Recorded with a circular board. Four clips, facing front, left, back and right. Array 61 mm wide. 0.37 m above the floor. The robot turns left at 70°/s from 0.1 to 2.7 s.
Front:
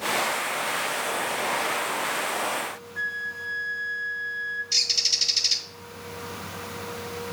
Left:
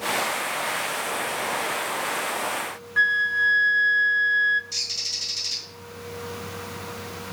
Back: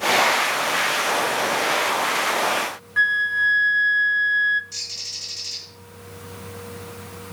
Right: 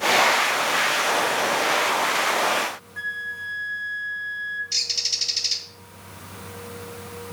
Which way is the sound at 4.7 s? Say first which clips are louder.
Right 3 dB, front 7 dB; 30° right.